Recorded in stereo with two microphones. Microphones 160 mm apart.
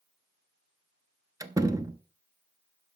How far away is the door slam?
About 0.8 m.